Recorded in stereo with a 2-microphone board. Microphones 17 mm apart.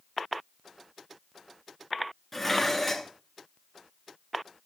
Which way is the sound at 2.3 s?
Centre (ahead or behind).